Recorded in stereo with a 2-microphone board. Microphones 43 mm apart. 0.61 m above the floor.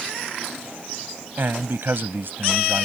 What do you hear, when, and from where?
1.4 s a man speaking: 60° right (ahead or behind)